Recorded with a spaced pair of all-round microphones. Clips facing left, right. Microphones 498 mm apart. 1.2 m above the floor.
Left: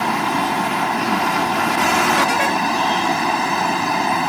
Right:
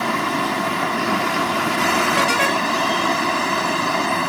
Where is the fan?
10° left (ahead or behind).